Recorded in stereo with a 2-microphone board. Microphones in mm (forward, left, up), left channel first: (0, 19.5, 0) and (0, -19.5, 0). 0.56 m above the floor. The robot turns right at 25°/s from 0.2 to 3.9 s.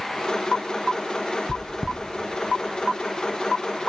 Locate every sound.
1.5 s chewing: 5° left (ahead or behind), 1.0 m; by 2.0 s 5° right (ahead or behind), 1.0 m